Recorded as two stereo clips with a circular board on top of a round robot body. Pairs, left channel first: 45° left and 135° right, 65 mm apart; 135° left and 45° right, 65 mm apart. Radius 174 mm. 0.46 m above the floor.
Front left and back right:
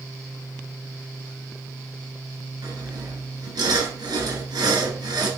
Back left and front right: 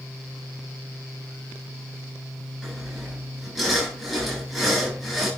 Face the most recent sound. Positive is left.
turn(degrees=-135)